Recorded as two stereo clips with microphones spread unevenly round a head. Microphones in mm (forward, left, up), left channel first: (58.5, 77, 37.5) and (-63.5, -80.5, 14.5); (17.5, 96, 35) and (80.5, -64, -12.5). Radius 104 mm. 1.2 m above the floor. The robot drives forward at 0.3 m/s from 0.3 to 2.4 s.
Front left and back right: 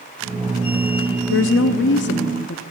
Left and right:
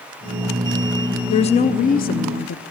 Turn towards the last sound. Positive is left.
turn(degrees=90)